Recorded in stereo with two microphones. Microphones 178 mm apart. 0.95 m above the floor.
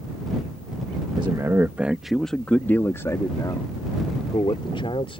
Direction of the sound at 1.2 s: 25° right (ahead or behind).